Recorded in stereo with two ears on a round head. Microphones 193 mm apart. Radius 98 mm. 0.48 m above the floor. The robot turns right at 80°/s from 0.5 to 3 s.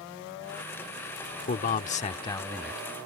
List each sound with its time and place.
1.5 s a man speaking: 80° left; by 2.8 s 175° right